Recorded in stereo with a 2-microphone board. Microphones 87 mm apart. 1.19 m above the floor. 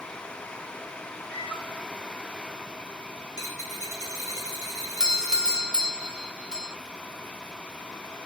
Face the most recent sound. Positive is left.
turn(degrees=-10)  # may be behind; listen again after turning